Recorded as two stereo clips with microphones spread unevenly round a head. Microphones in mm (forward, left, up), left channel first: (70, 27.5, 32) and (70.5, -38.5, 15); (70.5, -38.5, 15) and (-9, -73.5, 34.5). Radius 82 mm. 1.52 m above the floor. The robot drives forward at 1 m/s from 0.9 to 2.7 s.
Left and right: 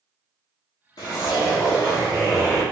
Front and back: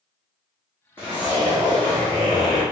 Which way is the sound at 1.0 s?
105° left.